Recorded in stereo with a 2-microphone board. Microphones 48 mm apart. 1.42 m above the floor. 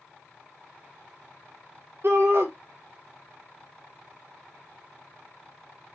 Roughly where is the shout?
Right.